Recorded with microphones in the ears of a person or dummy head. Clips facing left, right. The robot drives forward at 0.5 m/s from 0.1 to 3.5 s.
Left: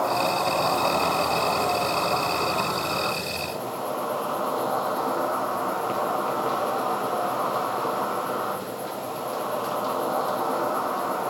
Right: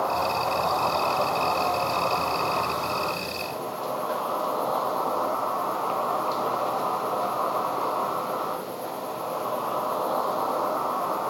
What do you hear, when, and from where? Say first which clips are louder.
0.0 s an insect: left 2 dB; 30° left (ahead or behind), 1.8 m; by 11.3 s 15° left (ahead or behind), 3 m